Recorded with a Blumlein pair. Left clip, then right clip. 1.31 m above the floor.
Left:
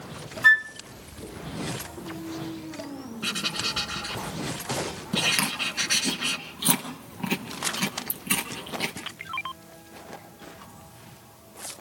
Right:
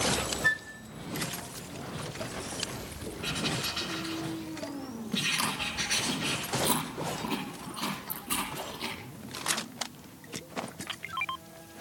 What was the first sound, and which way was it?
A flute, 65° left.